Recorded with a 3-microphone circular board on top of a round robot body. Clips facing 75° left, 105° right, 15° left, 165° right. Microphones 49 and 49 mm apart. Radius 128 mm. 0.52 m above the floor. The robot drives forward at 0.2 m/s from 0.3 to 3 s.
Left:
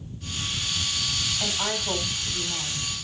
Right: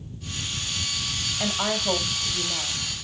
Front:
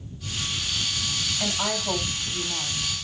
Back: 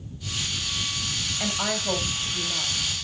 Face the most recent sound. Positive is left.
turn(degrees=-100)